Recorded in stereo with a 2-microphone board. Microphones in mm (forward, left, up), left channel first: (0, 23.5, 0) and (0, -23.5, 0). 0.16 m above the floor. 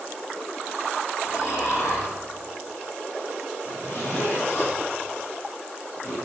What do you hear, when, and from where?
1.2 s snoring: 70° left (ahead or behind), 7.5 m
3.6 s a zipper: 55° left (ahead or behind), 7 m